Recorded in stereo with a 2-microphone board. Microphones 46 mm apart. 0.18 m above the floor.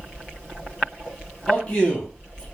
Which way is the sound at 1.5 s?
20° left (ahead or behind).